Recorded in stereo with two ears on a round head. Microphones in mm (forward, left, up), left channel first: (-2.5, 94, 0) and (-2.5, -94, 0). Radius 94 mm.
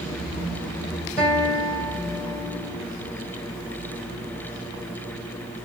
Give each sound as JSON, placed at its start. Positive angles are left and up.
{"t": 1.2, "sound": "a guitar", "side_deg": 10, "distance_m": 1.8}